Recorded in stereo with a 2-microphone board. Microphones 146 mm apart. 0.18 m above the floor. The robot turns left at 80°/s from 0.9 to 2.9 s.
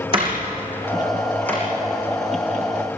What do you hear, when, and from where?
0.1 s a door slam: 35° right (ahead or behind), 7 m; by 1.6 s 20° left (ahead or behind), 7 m